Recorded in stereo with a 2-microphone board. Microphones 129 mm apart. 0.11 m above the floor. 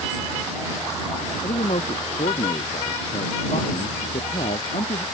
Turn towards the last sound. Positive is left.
turn(degrees=60)  # may be behind; listen again after turning